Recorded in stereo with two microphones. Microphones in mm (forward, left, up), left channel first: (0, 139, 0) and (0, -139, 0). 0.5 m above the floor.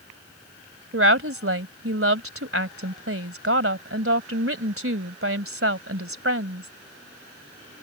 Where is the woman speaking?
55° right (ahead or behind).